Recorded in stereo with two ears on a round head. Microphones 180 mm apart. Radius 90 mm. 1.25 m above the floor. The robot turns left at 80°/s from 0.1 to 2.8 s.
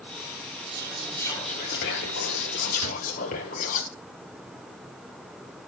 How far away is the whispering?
About 1.1 m.